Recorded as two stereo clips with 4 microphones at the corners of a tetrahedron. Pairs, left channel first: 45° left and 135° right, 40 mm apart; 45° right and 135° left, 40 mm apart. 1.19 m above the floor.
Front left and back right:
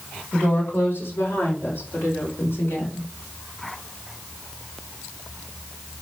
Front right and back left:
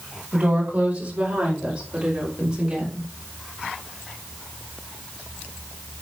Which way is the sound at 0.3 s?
80° left.